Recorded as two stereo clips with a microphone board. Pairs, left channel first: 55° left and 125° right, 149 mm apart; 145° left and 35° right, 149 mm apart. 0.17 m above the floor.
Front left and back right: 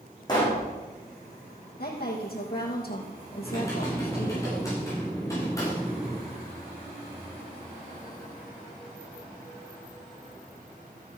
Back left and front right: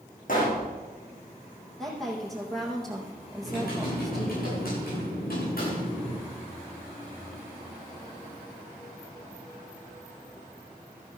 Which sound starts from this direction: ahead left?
A woman speaking, at 1.8 s.